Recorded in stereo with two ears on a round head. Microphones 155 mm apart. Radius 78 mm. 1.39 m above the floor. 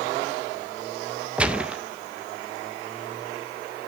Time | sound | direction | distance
1.4 | a gunshot | 5° right (ahead or behind) | 0.5 m